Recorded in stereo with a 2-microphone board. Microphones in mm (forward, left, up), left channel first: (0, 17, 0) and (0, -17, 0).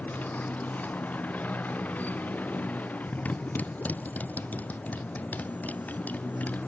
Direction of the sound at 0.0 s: 55° left (ahead or behind).